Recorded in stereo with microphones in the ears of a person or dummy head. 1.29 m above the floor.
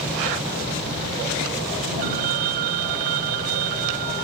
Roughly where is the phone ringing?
Right.